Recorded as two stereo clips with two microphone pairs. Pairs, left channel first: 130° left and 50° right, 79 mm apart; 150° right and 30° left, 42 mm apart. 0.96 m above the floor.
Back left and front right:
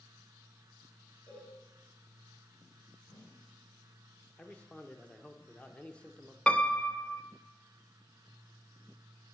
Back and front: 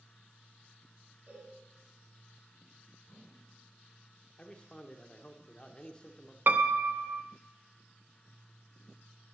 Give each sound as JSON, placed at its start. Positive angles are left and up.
{"t": 1.3, "sound": "a cowbell", "azimuth_deg": 55, "distance_m": 5.5}
{"t": 3.0, "sound": "a whoosh", "azimuth_deg": 120, "distance_m": 5.0}
{"t": 4.4, "sound": "a man speaking", "azimuth_deg": 180, "distance_m": 0.8}
{"t": 6.5, "sound": "a piano", "azimuth_deg": 55, "distance_m": 0.5}